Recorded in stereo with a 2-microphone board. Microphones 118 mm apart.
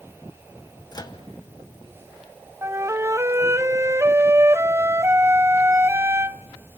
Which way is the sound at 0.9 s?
35° left (ahead or behind).